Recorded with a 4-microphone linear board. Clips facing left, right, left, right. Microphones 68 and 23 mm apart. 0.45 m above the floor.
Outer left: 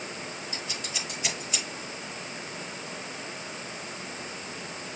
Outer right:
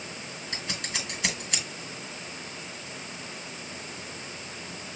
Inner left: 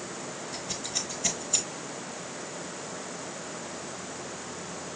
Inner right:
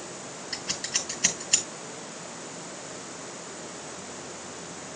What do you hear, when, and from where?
0.5 s scissors: 80° right, 4 m